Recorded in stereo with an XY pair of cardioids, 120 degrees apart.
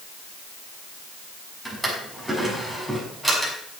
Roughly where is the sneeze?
I don't hear a sneeze.